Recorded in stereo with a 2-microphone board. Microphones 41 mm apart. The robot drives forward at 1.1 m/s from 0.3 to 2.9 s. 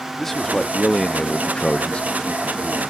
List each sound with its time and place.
0.2 s a man speaking: 5° left (ahead or behind); by 2.9 s 10° left (ahead or behind)